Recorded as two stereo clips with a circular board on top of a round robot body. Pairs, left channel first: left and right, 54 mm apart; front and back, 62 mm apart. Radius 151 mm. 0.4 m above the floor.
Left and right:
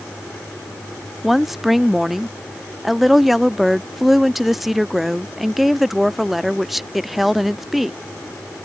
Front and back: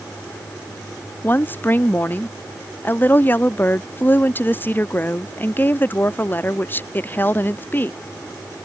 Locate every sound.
1.2 s a woman speaking: 5° right